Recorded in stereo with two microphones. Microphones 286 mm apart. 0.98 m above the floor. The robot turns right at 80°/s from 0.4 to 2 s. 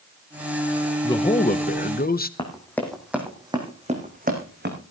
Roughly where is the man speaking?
Ahead left.